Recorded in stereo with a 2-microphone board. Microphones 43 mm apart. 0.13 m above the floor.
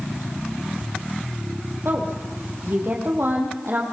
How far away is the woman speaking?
About 6 m.